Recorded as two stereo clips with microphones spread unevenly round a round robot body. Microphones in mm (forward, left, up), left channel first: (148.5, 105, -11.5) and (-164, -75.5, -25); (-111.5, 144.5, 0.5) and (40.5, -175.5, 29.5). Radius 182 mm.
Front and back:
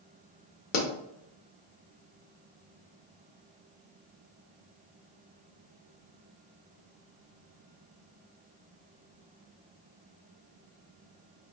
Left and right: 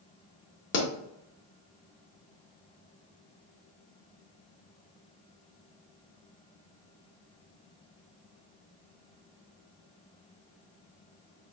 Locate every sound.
0.7 s a pop: 85° left, 0.8 m